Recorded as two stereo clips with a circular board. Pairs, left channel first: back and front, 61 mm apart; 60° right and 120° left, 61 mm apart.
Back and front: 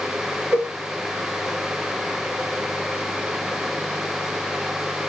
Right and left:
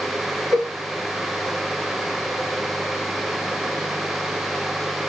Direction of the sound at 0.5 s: 45° right.